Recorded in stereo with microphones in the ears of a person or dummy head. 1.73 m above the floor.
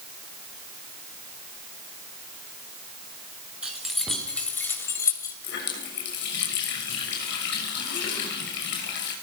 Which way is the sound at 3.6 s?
5° right (ahead or behind).